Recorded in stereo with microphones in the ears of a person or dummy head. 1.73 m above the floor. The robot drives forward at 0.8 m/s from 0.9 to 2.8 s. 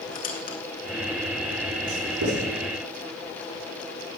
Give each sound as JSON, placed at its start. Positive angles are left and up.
{"t": 0.1, "sound": "a squeak", "side_deg": 45, "distance_m": 2.0}
{"t": 1.9, "sound": "writing", "side_deg": -70, "distance_m": 9.5}